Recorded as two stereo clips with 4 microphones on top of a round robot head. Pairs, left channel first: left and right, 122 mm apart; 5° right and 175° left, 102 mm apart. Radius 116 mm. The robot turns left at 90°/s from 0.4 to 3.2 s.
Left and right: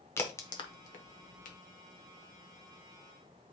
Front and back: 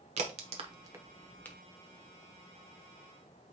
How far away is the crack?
About 0.9 m.